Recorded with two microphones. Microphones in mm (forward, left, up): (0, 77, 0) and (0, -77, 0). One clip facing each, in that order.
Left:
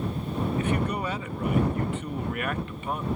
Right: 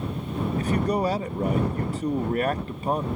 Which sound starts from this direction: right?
A man speaking, at 0.6 s.